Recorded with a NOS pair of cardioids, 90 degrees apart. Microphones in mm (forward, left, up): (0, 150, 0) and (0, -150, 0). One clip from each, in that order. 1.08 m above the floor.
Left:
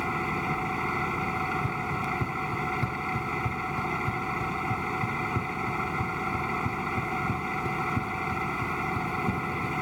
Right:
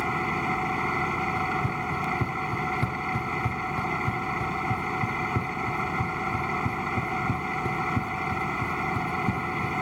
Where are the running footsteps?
45° right.